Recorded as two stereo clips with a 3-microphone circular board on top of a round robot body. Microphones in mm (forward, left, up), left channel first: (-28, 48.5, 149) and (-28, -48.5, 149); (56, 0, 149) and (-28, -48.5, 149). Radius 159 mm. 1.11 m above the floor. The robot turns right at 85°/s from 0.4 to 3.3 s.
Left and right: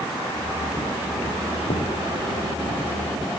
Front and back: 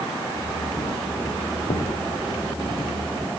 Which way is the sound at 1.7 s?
60° left.